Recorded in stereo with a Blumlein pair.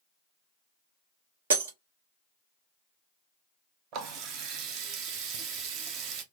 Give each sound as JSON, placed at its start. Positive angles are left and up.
{"t": 1.5, "sound": "breaking glass", "azimuth_deg": -60, "distance_m": 0.9}
{"t": 3.9, "sound": "a running tap", "azimuth_deg": -35, "distance_m": 0.6}